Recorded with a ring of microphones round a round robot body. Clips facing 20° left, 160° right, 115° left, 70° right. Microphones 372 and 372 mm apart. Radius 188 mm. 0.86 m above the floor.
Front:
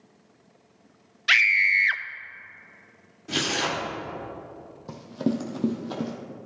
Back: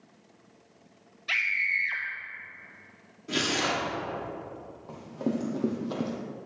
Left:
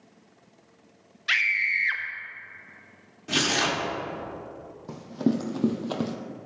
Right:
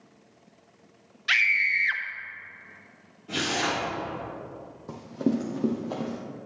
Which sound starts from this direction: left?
Tearing paper, at 3.3 s.